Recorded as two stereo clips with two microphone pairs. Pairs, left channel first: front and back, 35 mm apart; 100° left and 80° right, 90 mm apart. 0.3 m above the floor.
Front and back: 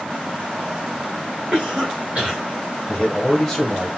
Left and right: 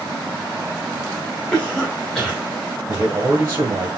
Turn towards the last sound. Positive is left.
turn(degrees=-65)